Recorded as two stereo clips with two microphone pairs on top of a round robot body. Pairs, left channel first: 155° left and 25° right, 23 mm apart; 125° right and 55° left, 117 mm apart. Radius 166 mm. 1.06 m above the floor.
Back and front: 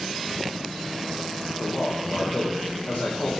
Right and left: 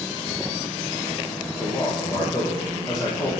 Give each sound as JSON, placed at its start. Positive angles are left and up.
{"t": 1.6, "sound": "a man speaking", "azimuth_deg": 170, "distance_m": 1.3}